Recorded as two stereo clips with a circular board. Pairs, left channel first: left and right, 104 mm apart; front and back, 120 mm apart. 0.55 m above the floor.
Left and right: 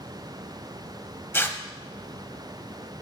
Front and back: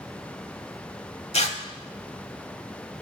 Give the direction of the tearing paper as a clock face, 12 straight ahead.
11 o'clock.